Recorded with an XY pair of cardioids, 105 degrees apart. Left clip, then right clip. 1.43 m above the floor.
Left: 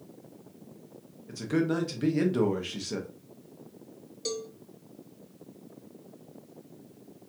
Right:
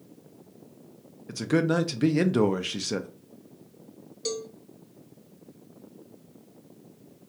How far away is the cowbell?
About 0.7 m.